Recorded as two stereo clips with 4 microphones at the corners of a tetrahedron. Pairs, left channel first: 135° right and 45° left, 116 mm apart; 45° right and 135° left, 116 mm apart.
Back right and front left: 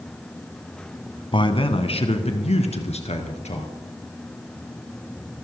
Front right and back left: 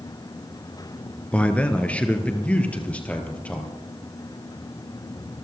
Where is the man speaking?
120° right, 1.4 m.